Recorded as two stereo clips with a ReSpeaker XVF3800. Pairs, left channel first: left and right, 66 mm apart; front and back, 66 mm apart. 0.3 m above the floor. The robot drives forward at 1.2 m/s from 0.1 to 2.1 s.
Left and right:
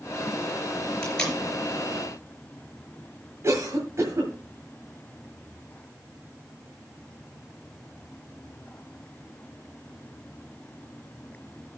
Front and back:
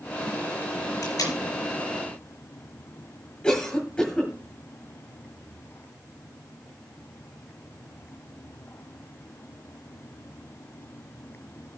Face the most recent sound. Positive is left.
turn(degrees=-75)